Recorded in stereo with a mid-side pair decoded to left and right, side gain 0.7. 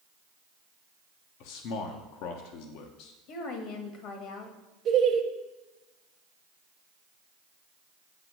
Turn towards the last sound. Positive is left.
turn(degrees=-40)